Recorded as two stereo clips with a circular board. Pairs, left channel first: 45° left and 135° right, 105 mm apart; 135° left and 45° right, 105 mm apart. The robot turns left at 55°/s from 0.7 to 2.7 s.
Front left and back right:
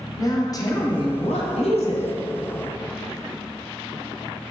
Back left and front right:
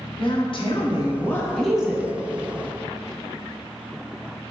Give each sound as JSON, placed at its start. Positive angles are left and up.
{"t": 0.2, "sound": "a woman speaking", "azimuth_deg": 100, "distance_m": 0.6}